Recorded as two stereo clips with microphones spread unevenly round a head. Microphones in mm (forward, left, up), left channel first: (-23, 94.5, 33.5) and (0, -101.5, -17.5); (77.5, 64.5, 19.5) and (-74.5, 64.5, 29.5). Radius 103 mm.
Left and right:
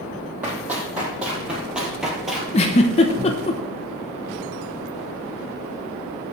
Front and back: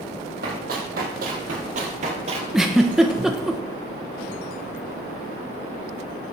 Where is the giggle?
100° left, 1.0 m.